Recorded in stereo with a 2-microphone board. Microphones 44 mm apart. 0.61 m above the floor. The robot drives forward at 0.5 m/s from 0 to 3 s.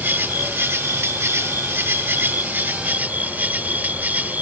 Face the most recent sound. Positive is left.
turn(degrees=-40)  # may be behind; listen again after turning